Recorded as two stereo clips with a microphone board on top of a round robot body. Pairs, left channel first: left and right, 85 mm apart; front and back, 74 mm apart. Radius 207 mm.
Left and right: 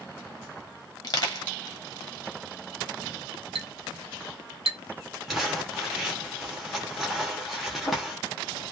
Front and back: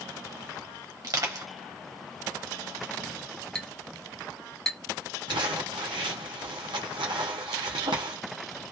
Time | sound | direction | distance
1.0 | crushing | 135° left | 1.0 m
3.5 | a clink | 85° right | 1.1 m
5.3 | crumpling | straight behind | 0.7 m